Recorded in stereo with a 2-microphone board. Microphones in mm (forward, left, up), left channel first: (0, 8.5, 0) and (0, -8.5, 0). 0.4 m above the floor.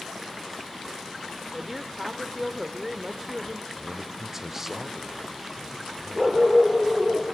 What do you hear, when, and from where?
1.5 s a woman speaking: 15° right (ahead or behind), 0.8 m
3.8 s a man speaking: 15° right (ahead or behind), 0.9 m
6.2 s a dog barking: 25° left (ahead or behind), 3.5 m